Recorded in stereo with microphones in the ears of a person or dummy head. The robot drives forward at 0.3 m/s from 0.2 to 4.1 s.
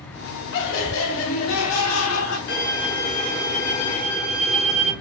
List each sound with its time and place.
0.5 s laughter: 65° left (ahead or behind), 0.8 m; by 2.4 s 75° left (ahead or behind), 0.8 m
2.5 s a violin: 60° left (ahead or behind), 1.3 m; by 4.9 s 45° left (ahead or behind), 1.6 m